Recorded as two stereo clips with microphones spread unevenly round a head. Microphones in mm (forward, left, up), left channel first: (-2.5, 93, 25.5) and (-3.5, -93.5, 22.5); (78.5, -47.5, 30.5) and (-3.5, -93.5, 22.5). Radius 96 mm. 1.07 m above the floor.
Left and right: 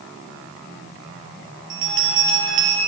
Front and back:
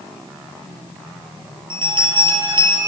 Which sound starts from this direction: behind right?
A bell, at 1.7 s.